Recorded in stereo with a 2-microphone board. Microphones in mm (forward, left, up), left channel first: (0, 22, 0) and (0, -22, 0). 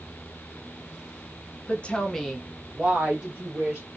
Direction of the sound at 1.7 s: 35° left (ahead or behind).